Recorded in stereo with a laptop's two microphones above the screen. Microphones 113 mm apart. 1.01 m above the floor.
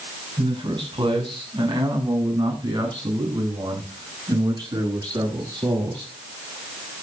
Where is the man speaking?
50° right (ahead or behind), 6.5 m; by 6.1 s 35° right (ahead or behind), 11 m.